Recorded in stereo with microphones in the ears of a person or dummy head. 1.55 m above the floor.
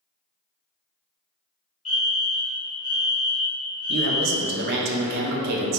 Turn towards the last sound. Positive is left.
turn(degrees=-55)  # may be behind; listen again after turning